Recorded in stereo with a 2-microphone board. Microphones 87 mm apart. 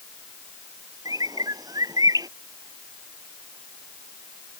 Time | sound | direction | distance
1.1 | a bird | 45° right (ahead or behind) | ?